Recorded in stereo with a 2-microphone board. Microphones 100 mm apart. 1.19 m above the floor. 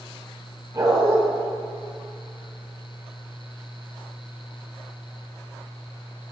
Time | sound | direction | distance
0.7 | a dog barking | 35° right (ahead or behind) | 2.5 m